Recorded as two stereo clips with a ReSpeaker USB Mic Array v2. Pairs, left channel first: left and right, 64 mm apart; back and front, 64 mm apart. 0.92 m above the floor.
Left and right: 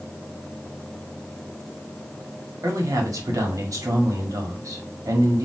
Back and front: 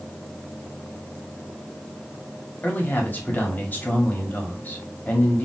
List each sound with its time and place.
2.6 s a man speaking: 120° right, 1.7 m